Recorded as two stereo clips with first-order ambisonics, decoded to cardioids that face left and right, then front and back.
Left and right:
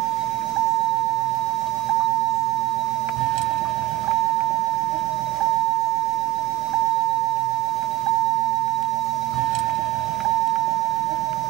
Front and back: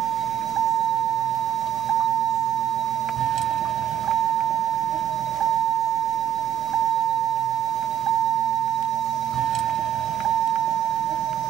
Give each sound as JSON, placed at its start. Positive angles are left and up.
{"t": 0.0, "sound": "a vehicle", "azimuth_deg": -125}